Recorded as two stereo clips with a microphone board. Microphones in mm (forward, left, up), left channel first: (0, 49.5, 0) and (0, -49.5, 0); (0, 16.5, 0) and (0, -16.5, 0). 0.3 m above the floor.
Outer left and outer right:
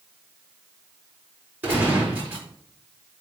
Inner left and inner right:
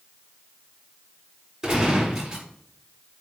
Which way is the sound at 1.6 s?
20° right (ahead or behind).